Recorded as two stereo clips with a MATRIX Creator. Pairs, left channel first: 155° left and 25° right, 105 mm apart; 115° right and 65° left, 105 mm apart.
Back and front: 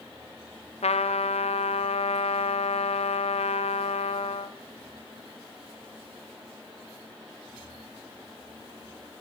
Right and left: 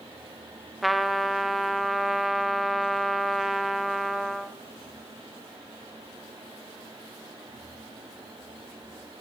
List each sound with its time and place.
0.8 s a trumpet: 155° left, 0.6 m